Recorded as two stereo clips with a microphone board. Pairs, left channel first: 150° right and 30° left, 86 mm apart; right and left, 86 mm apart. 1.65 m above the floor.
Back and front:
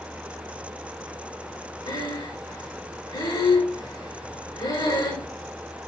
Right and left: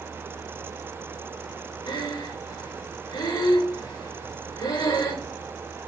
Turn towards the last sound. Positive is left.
turn(degrees=-120)